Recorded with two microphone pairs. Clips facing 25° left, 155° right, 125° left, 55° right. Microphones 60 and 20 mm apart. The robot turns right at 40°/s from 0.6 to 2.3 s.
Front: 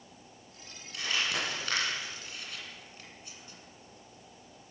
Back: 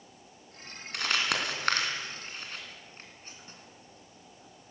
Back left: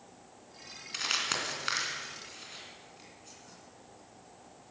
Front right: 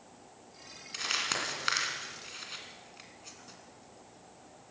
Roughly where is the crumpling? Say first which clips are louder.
Back 3 dB, back left 1 dB; behind.